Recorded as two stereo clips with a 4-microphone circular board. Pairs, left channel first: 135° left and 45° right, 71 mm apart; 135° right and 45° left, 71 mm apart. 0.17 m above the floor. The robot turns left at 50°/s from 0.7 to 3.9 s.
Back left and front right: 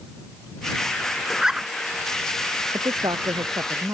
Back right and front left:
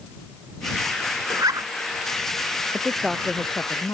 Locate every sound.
1.3 s a zipper: 45° left; by 1.7 s 25° left
2.7 s a woman speaking: 30° right; by 3.9 s 90° right